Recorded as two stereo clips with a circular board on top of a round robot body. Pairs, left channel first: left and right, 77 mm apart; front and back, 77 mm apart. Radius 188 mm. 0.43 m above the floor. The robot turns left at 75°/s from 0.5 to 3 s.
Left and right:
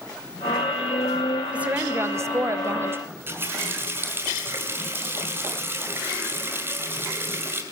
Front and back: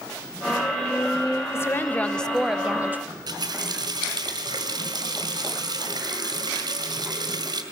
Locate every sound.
1.5 s a woman speaking: 25° right, 0.8 m; by 3.0 s 130° right, 0.8 m
3.1 s a running tap: 150° right, 2.5 m